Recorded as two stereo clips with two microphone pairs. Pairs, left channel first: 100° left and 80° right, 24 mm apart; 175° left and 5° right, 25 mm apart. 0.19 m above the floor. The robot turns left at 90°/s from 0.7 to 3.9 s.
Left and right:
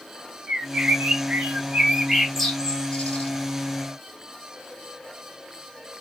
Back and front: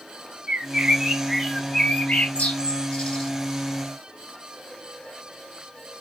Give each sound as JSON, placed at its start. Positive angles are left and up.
{"t": 0.5, "sound": "a bird", "azimuth_deg": -25, "distance_m": 1.6}